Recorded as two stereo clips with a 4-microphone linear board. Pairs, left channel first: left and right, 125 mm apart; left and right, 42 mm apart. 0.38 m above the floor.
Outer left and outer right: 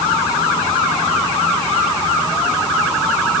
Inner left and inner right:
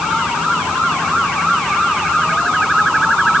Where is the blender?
No blender in this recording.